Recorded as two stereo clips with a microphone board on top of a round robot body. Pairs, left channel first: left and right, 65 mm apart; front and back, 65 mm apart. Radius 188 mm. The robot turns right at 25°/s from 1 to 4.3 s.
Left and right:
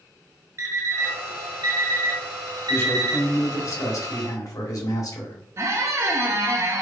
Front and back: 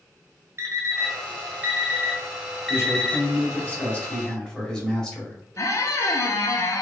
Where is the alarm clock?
135° right, 1.2 m; by 3.2 s 80° right, 1.2 m.